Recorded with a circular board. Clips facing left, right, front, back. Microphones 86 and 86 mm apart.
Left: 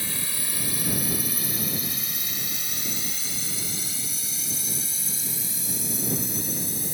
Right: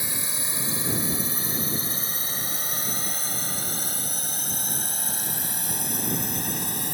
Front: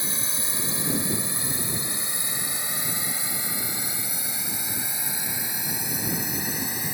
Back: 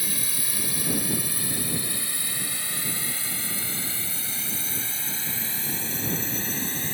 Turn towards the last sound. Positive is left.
turn(degrees=-80)